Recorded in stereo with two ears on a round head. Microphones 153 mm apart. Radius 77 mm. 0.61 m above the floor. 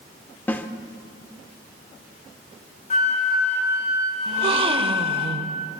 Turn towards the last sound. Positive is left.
turn(degrees=-35)  # may be behind; listen again after turning